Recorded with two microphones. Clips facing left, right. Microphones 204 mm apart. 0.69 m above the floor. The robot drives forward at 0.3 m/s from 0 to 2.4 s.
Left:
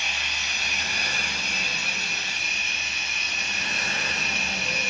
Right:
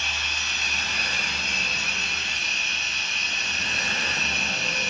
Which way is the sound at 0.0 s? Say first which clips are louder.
Even; 15° left (ahead or behind).